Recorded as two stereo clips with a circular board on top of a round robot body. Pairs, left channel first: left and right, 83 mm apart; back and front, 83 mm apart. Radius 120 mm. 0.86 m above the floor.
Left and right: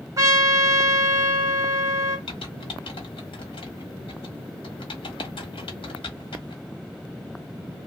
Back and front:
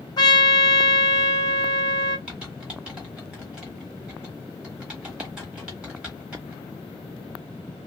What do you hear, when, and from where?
0.2 s a trumpet: 140° right, 1.2 m
2.3 s typing on a keyboard: 80° left, 0.7 m